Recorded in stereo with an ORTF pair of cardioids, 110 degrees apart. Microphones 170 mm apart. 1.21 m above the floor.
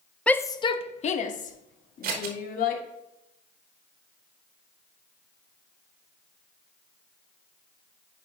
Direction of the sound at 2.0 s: 65° right.